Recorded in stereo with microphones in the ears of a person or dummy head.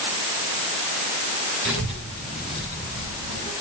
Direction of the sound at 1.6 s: 55° right (ahead or behind).